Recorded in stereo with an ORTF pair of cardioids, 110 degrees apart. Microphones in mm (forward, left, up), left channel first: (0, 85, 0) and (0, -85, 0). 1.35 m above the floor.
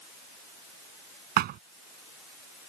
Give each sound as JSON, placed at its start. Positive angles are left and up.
{"t": 1.4, "sound": "a thud", "azimuth_deg": -70}